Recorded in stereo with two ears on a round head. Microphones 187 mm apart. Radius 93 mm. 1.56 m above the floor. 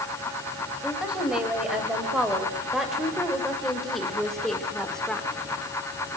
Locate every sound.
0.8 s a woman speaking: 5° right (ahead or behind), 6.5 m; by 5.3 s 5° left (ahead or behind), 4 m